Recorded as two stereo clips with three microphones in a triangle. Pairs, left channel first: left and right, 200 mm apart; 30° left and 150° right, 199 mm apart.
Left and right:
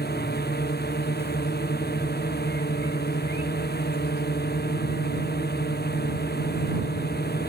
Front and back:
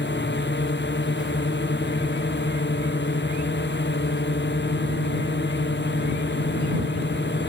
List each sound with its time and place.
0.0 s a drone: 55° left